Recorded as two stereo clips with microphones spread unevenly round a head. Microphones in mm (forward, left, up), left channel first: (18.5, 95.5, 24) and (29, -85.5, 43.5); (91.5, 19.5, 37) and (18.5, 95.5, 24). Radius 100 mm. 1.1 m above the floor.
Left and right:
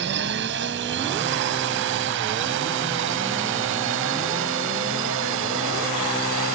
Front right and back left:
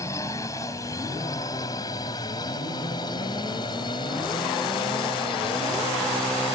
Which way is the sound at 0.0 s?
120° right.